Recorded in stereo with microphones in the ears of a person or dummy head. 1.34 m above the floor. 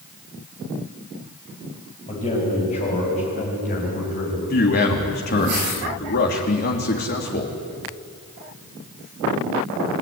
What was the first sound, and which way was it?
A man speaking, 25° left (ahead or behind).